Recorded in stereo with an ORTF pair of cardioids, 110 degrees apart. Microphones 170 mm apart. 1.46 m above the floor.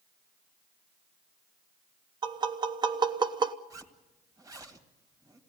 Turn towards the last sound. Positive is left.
turn(degrees=-20)